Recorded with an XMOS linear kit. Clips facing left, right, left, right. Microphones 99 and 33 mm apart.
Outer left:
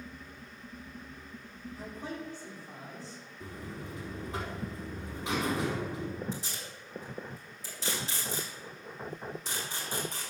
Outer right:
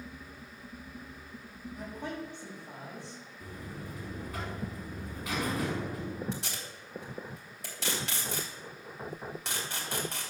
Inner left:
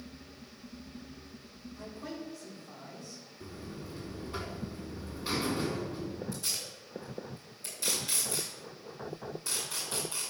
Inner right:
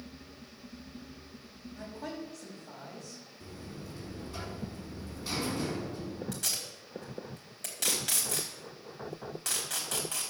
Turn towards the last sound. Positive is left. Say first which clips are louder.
# outer right 1 dB, inner right 1 dB
turn(degrees=-75)  # may be behind; listen again after turning